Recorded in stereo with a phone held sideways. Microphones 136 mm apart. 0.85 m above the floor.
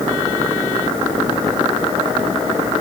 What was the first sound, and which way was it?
Only background noise.